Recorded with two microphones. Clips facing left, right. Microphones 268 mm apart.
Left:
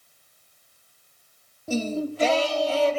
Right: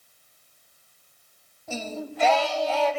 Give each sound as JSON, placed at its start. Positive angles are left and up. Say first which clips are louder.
{"t": 1.7, "sound": "singing", "louder": "left 8 dB", "side_deg": 35, "distance_m": 1.4}